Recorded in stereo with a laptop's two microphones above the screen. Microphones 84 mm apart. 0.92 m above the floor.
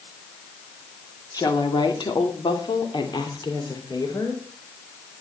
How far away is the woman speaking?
About 2.5 m.